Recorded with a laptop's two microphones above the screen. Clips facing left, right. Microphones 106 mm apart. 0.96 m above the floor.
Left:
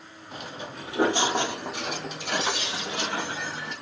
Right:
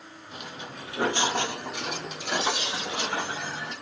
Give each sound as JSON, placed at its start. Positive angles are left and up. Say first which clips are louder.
{"t": 0.3, "sound": "footsteps", "louder": "left 3 dB", "side_deg": 35, "distance_m": 1.1}